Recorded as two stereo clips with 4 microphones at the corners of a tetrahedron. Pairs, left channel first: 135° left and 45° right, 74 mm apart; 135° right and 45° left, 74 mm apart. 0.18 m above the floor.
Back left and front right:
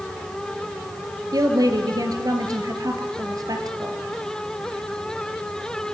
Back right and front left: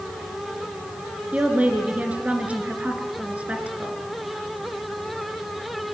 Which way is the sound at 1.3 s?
25° right.